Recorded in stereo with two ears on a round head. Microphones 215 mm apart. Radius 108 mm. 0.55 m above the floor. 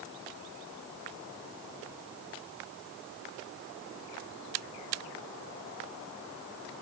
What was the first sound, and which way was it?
Only background noise.